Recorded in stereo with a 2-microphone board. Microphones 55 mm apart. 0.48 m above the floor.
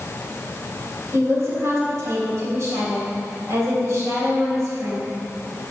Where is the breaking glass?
No breaking glass in this recording.